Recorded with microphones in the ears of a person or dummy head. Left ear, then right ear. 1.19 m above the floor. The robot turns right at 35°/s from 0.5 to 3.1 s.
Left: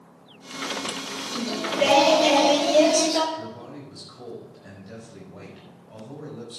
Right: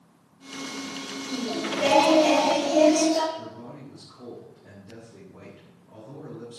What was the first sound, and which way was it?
Singing, 10° left.